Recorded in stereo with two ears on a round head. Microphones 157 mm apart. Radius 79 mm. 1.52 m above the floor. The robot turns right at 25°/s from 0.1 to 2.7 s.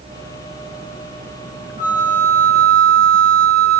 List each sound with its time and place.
1.8 s a flute: 45° left (ahead or behind), 2 m; by 3.8 s 25° left (ahead or behind), 2 m